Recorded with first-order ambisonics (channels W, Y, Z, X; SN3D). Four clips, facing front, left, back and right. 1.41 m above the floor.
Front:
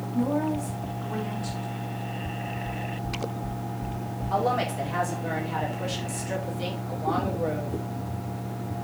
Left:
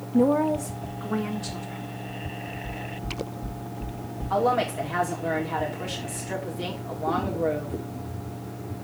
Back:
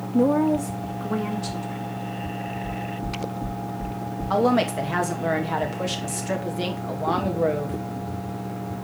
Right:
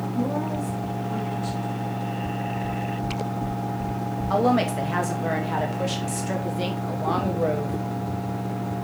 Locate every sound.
0.1 s a woman speaking: 135° left, 0.6 m; by 2.0 s 165° left, 2 m
2.6 s knocking: 135° right, 3 m
4.3 s a woman speaking: 150° right, 2.5 m